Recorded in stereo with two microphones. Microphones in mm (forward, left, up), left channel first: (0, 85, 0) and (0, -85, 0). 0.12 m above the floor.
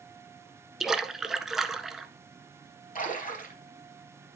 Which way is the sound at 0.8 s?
Centre (ahead or behind).